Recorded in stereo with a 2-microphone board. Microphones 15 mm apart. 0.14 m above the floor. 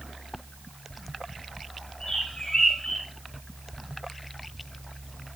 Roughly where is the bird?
Left.